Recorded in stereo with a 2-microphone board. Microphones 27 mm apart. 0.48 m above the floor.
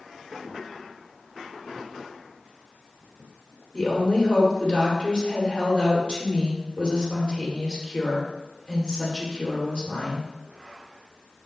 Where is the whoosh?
No whoosh in this recording.